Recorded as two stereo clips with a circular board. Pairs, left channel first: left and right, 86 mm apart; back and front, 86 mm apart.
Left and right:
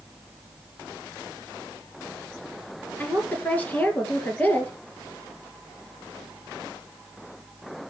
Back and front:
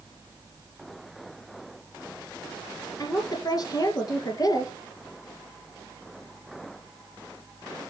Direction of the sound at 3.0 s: 155° left.